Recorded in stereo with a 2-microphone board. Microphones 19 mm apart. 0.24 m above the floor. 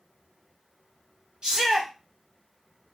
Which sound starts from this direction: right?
A shout, at 1.4 s.